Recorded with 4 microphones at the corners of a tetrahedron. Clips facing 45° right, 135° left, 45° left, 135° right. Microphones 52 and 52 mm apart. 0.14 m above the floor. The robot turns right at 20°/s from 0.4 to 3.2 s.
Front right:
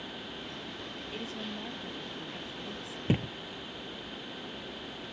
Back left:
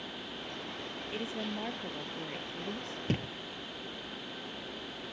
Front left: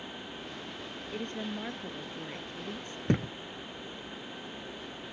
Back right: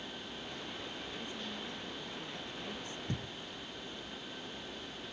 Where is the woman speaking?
65° left; by 3.0 s 105° left.